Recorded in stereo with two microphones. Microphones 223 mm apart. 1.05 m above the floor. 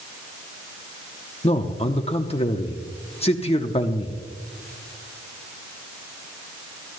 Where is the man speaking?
25° left (ahead or behind), 0.7 m.